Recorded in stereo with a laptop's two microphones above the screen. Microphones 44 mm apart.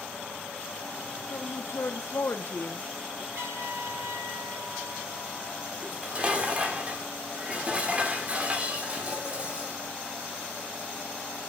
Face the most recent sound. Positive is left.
turn(degrees=-25)  # may be behind; listen again after turning